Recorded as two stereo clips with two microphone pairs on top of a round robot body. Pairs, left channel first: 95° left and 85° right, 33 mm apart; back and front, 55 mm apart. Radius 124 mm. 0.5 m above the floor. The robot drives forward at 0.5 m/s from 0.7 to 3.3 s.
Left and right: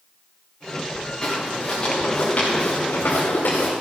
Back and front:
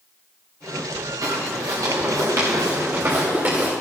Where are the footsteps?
10° left, 5.5 m; by 3.7 s 60° left, 4.5 m.